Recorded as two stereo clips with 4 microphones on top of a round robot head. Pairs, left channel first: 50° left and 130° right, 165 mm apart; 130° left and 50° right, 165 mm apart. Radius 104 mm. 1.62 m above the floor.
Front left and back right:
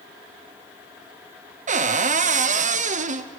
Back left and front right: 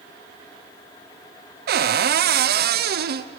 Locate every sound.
1.7 s a cupboard door: 80° right, 0.9 m